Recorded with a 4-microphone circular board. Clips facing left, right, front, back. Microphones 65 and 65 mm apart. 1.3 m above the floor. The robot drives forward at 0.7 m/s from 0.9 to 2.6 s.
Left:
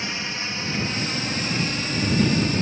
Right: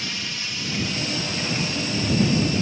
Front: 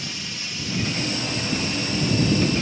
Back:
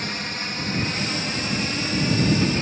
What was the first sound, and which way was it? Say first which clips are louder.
A drone: left 2 dB, back 5 dB; 150° left.